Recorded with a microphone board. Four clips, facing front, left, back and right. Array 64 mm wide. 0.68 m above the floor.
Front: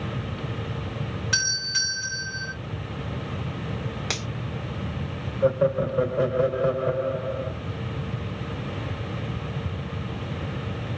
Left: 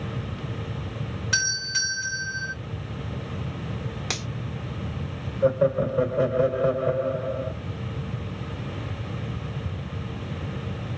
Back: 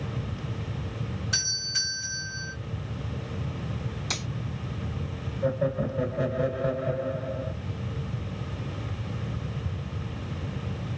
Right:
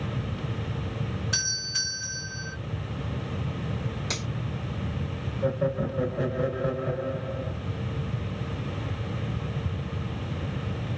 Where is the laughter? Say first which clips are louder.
Left 6 dB, front 6 dB; 40° left, 2 m.